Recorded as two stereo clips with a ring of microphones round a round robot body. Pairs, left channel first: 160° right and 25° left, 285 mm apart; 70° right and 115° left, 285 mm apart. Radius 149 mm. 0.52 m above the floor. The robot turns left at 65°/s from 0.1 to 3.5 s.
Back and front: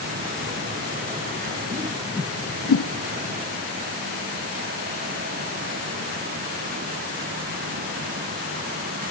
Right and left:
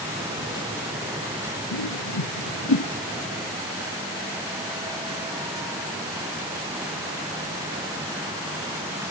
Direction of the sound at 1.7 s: 45° right.